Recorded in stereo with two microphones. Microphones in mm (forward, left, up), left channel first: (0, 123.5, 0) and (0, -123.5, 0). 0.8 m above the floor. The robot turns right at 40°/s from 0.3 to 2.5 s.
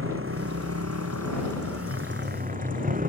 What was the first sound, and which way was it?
A motorcycle, 120° right.